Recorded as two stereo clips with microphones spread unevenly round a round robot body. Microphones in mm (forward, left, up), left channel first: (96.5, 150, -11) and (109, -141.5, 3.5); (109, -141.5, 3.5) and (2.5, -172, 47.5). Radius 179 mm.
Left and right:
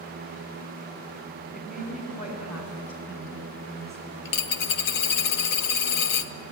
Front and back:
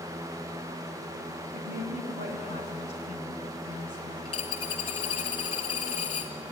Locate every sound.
1.5 s a woman speaking: 160° left, 3 m; by 4.4 s 175° left, 5.5 m
4.2 s a dropped coin: 80° left, 0.9 m